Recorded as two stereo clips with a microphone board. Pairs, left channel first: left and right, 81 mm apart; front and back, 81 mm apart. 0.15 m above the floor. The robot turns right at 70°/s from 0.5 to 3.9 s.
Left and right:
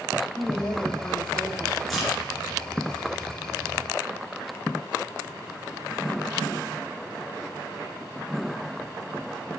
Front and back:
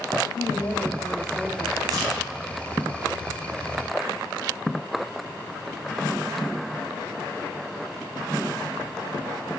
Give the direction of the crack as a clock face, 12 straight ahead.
6 o'clock.